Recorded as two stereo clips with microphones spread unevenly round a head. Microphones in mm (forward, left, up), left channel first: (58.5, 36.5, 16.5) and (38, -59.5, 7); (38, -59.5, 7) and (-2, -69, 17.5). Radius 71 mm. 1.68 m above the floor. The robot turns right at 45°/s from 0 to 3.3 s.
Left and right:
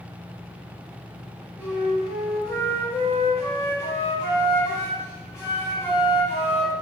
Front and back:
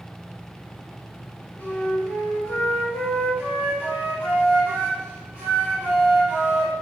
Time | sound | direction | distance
1.6 | a flute | 35° right | 1.3 m